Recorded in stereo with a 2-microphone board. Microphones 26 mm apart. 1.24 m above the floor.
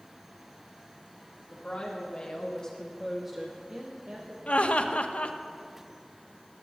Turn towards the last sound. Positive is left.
turn(degrees=60)  # may be behind; listen again after turning